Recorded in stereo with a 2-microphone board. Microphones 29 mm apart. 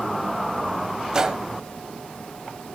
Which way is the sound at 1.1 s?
25° right (ahead or behind).